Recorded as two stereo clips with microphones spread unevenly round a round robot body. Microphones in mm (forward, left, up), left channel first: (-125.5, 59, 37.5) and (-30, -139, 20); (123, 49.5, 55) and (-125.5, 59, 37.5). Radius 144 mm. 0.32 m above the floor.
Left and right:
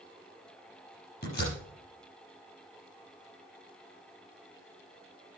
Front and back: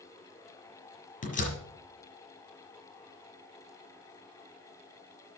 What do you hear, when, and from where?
1.2 s a door slam: 55° left, 5.5 m